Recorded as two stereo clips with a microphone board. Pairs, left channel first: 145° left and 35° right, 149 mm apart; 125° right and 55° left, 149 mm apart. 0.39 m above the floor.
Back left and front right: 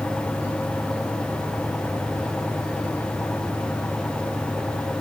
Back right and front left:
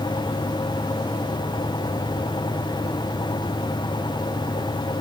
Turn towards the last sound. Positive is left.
No sound to turn to.